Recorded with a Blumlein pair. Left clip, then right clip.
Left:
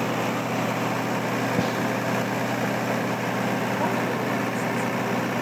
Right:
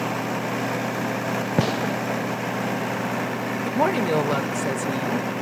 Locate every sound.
1.6 s a gunshot: 65° right, 0.7 m
3.6 s a woman speaking: 35° right, 2 m